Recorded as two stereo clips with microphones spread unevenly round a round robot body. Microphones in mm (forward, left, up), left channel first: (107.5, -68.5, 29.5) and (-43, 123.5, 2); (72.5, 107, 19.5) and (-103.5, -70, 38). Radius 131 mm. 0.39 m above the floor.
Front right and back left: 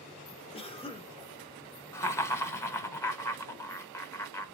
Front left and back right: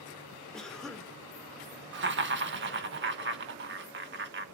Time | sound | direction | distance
0.5 | a cough | 25° right | 1.1 m
1.9 | laughter | 135° right | 1.0 m